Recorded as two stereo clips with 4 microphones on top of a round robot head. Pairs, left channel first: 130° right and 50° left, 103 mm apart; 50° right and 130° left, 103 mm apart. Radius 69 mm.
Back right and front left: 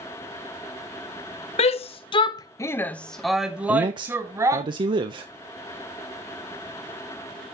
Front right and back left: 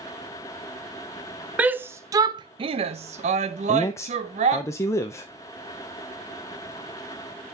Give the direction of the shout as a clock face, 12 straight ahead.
5 o'clock.